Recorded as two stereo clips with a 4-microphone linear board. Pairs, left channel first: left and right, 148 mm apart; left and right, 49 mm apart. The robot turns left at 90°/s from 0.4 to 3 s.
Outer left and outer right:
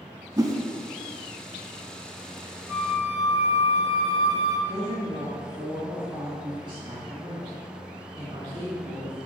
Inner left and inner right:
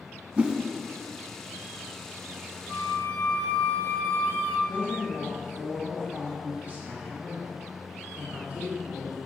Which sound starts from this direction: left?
A flute, at 2.7 s.